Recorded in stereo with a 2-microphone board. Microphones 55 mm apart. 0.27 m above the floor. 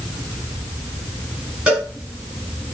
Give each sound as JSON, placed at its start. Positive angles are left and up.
{"t": 1.7, "sound": "a cowbell", "side_deg": -20, "distance_m": 3.0}